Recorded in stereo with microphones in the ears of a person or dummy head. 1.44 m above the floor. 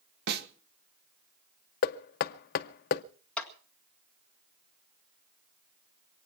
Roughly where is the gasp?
I don't hear a gasp.